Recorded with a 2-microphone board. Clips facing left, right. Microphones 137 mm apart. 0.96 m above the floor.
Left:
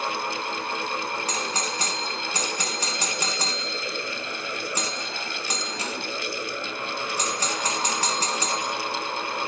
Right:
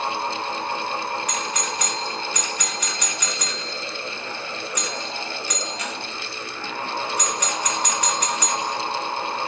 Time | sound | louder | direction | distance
1.3 | a doorbell | right 1 dB | 30° left (ahead or behind) | 1.6 m